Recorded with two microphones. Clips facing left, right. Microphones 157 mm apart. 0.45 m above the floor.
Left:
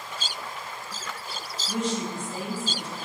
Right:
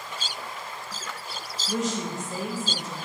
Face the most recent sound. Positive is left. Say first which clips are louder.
# even
turn(degrees=-45)  # may be behind; listen again after turning